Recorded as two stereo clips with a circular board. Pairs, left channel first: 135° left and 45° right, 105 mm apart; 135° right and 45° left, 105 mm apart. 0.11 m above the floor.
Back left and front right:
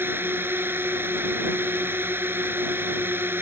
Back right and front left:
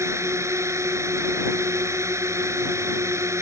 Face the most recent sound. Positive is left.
turn(degrees=10)